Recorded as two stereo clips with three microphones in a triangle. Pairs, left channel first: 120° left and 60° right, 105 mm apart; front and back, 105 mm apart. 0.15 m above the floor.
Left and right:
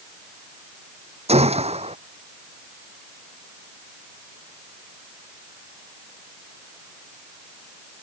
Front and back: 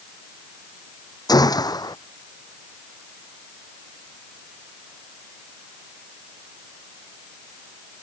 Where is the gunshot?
50° right.